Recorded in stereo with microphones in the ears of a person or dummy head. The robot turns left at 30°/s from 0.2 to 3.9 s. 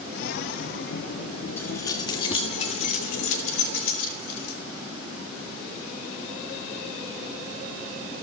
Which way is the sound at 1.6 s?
15° left (ahead or behind).